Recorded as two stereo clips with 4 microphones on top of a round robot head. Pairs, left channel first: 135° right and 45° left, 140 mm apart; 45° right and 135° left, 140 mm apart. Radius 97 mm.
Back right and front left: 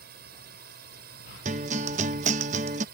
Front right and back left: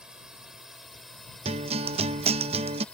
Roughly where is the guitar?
Left.